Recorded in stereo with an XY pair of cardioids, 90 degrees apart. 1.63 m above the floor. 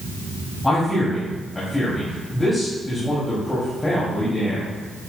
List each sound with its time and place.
0.6 s a man speaking: 20° left, 3 m